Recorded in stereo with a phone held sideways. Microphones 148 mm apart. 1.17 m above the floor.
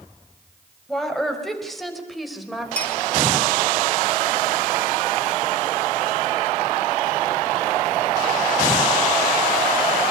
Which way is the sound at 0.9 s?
Centre (ahead or behind).